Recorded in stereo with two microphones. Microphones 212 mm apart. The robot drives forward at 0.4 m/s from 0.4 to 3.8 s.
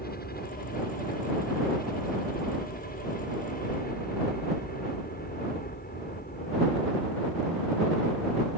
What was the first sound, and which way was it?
A helicopter, 45° left (ahead or behind).